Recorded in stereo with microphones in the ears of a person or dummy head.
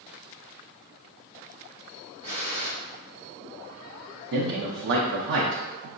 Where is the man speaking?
60° right (ahead or behind), 0.5 m.